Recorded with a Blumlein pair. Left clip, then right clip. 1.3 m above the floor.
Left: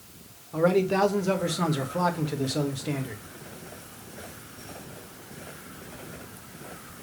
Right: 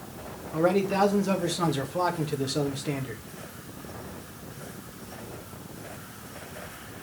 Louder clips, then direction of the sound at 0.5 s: Left 1 dB; 5° left.